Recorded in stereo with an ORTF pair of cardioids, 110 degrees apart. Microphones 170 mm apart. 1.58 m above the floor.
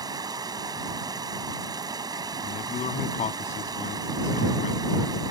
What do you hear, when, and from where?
0.0 s running water: 25° right
2.4 s a man speaking: 50° left